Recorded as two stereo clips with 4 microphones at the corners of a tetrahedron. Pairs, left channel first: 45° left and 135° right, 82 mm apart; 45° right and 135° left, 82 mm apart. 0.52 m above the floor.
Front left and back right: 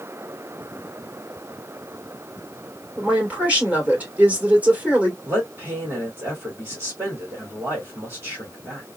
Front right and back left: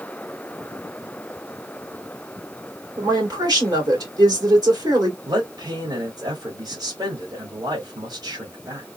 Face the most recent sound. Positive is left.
turn(degrees=165)